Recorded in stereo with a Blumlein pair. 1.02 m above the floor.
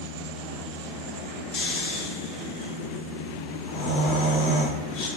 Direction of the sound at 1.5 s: 35° left.